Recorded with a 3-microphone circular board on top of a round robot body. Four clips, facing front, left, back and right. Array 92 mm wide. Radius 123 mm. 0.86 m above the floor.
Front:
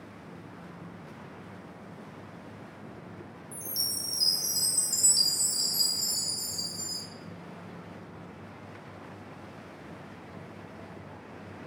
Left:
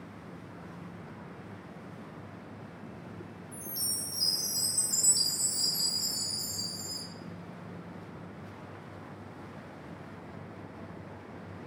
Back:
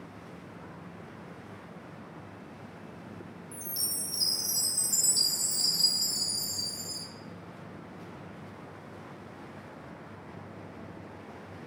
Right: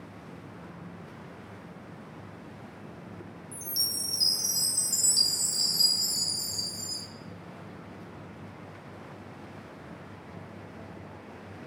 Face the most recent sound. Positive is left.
turn(degrees=-85)